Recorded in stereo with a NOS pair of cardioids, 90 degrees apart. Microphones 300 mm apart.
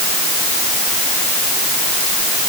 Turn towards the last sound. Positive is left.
No sound to turn to.